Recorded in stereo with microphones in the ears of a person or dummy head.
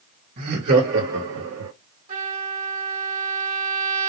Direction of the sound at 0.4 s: 45° right (ahead or behind).